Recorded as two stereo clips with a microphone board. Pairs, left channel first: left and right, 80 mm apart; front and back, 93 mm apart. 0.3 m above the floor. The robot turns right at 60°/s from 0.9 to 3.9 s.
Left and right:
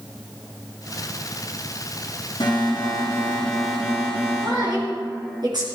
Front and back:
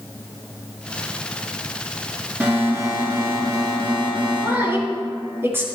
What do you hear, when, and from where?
2.4 s an alarm: 105° left, 7 m; by 5.4 s 165° right, 7 m
4.4 s a woman speaking: 115° right, 5 m